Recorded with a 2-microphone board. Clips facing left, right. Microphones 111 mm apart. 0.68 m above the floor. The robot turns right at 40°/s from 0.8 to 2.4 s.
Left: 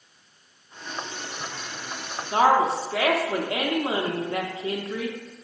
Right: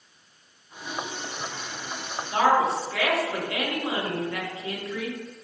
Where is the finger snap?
No finger snap in this recording.